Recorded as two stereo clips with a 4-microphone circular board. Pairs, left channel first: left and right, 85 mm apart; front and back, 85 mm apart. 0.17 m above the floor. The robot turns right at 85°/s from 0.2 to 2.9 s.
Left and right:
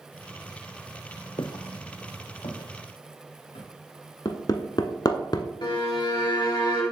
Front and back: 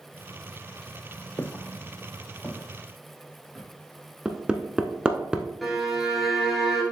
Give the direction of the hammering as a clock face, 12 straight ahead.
9 o'clock.